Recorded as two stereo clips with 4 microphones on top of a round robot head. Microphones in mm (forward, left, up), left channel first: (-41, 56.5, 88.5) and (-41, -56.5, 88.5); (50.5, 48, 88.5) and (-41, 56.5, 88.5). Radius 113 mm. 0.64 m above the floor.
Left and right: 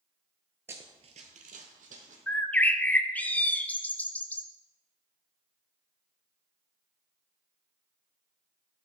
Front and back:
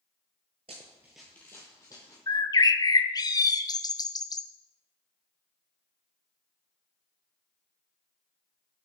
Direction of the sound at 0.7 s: 155° right.